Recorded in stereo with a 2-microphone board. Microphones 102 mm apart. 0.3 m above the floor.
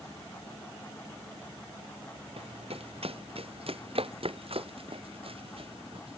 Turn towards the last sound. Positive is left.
turn(degrees=-60)  # may be behind; listen again after turning